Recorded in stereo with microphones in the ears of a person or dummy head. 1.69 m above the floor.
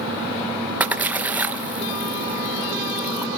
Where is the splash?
15° right (ahead or behind), 1.5 m.